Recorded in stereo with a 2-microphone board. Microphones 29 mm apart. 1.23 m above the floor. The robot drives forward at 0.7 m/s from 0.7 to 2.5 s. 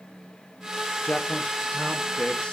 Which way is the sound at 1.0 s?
60° left (ahead or behind).